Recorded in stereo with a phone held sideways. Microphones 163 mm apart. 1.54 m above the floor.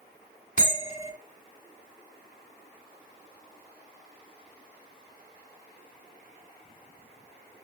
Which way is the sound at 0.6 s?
50° left (ahead or behind).